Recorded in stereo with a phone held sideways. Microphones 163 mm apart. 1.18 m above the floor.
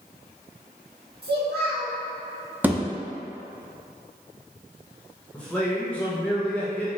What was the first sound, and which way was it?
A child speaking, 75° right (ahead or behind).